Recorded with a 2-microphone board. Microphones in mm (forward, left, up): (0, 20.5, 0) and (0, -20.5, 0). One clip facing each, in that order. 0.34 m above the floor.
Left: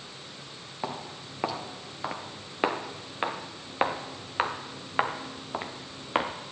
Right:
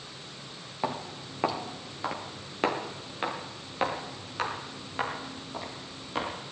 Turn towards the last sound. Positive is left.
turn(degrees=50)  # may be behind; listen again after turning